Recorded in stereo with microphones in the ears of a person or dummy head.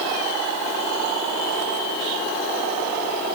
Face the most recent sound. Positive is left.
No sound to turn to.